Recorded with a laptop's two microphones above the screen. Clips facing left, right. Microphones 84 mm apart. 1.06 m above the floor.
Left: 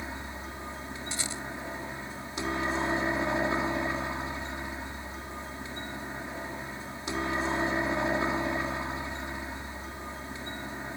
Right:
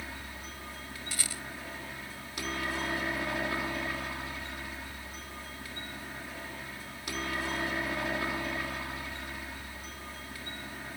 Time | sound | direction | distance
0.0 | a helicopter | 25° left (ahead or behind) | ?
1.1 | a rattle | 25° left (ahead or behind) | ?